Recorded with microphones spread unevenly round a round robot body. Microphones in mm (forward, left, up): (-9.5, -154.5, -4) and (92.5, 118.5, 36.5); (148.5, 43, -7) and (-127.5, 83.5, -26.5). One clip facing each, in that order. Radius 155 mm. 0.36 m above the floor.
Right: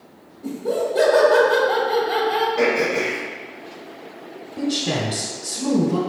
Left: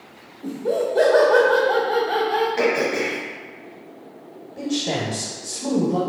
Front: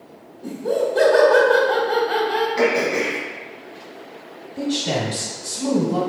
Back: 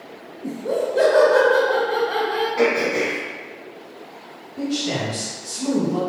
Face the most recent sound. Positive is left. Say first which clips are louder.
# right 1 dB, front 1 dB
turn(degrees=-50)